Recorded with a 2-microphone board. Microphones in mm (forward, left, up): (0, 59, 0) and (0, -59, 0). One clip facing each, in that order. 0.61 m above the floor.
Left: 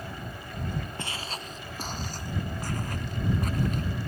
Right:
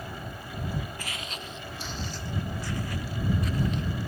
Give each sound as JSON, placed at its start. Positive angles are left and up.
{"t": 1.0, "sound": "footsteps", "side_deg": 25}